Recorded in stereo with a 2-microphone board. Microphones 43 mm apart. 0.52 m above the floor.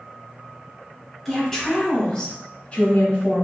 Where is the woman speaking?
Centre (ahead or behind), 1.4 m; by 3.5 s 35° left (ahead or behind), 1.2 m.